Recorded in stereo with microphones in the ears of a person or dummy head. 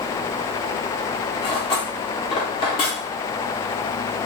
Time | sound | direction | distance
1.4 | cutlery clinking | 25° left (ahead or behind) | 0.9 m